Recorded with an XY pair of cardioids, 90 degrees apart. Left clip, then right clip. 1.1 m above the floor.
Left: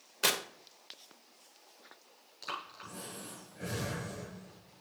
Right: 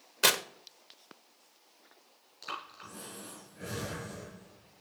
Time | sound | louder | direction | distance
0.2 | tearing paper | right 4 dB | 35° right | 0.8 m
2.4 | breathing | even | 5° left | 4 m